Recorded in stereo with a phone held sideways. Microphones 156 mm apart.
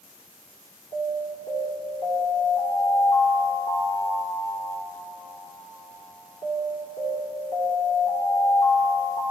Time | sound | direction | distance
0.9 | an alarm | 40° left (ahead or behind) | 2 m